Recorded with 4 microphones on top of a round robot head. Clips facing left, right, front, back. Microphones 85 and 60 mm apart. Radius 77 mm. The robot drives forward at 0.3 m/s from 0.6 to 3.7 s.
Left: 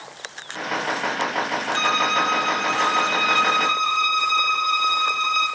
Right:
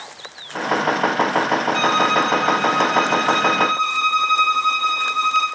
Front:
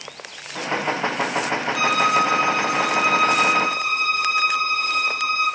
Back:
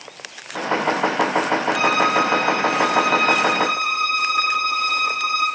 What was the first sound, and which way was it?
A violin, 130° right.